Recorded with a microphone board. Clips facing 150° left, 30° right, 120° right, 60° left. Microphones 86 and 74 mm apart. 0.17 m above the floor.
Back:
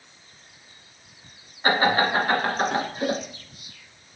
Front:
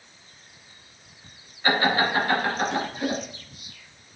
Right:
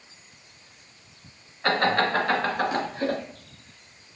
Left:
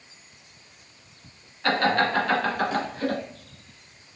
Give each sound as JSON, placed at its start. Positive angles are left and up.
{"t": 1.6, "sound": "laughter", "azimuth_deg": 180, "distance_m": 2.0}